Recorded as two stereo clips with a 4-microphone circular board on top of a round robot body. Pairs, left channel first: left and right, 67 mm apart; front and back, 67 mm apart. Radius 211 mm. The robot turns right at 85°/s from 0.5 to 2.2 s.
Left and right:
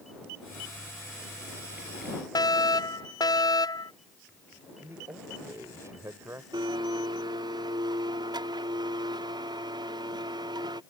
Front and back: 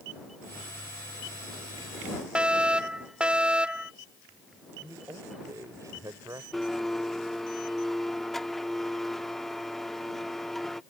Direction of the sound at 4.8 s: 140° right.